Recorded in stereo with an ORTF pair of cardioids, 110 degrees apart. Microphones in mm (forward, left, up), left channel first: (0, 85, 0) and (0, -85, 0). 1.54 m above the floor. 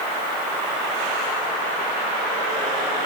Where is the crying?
No crying in this recording.